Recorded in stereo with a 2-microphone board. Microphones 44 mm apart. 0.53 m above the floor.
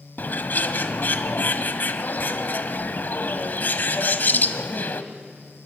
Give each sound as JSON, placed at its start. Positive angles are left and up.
{"t": 0.2, "sound": "a bird", "side_deg": 50, "distance_m": 0.8}